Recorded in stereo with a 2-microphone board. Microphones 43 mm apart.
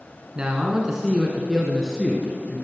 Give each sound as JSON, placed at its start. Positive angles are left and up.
{"t": 0.3, "sound": "a man speaking", "side_deg": -20, "distance_m": 1.5}